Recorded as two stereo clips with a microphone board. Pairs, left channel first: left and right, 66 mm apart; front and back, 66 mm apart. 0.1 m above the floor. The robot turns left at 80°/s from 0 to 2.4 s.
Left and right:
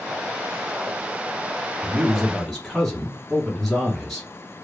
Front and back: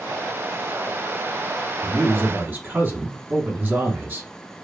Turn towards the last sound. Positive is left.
turn(degrees=175)